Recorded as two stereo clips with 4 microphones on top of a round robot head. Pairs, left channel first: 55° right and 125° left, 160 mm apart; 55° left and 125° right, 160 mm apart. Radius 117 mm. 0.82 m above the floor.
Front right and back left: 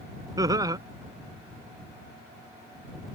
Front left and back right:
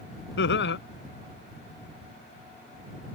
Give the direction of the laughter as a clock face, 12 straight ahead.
10 o'clock.